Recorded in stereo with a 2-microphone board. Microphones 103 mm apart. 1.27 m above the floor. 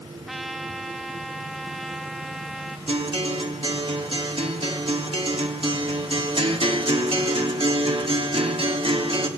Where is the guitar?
60° right (ahead or behind), 3 m.